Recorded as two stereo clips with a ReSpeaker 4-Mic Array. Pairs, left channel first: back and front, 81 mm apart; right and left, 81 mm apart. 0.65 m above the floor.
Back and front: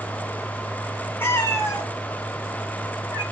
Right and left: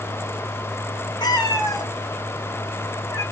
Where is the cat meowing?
115° right, 0.7 m; by 3.2 s 140° right, 3 m.